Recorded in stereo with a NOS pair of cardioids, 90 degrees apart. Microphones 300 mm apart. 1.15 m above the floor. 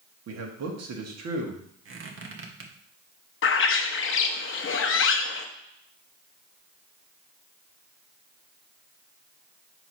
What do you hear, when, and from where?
0.3 s a man speaking: 55° right, 1.8 m
1.9 s a squeak: 45° right, 1.4 m
3.4 s a bird: 45° left, 0.8 m